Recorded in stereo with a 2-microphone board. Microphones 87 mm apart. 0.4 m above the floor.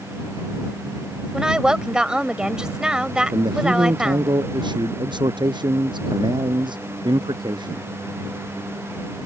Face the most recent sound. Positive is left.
turn(degrees=-60)  # may be behind; listen again after turning